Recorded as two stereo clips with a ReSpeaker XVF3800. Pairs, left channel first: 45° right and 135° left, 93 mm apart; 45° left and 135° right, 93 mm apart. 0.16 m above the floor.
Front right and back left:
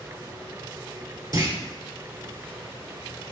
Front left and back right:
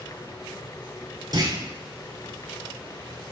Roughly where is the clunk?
Behind.